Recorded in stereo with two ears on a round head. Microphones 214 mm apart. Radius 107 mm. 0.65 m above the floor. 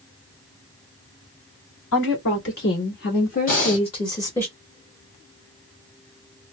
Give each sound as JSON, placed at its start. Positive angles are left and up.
{"t": 1.9, "sound": "a woman speaking", "side_deg": 55, "distance_m": 1.9}
{"t": 3.5, "sound": "breathing", "side_deg": 35, "distance_m": 1.5}